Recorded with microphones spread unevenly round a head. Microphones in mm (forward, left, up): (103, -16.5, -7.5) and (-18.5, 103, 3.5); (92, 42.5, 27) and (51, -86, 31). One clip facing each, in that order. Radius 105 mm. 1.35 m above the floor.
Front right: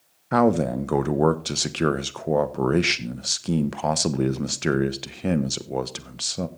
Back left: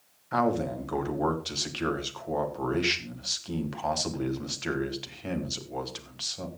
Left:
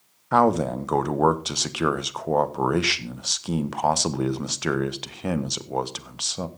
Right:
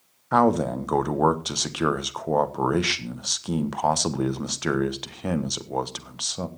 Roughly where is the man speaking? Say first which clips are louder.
Front right 7 dB, even; ahead.